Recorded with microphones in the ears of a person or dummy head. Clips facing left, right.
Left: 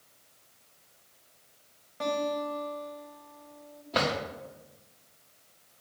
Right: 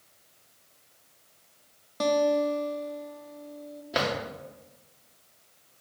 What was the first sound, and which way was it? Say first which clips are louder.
A guitar: right 7 dB; 55° right (ahead or behind).